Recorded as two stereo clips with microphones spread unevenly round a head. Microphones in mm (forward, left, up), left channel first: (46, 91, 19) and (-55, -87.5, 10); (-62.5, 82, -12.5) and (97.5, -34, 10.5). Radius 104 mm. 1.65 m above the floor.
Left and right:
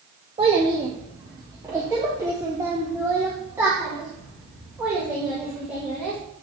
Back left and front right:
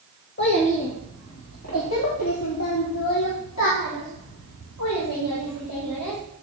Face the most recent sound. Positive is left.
turn(degrees=155)